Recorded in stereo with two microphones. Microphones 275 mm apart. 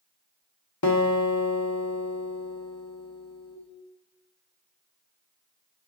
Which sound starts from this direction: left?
A guitar, at 0.8 s.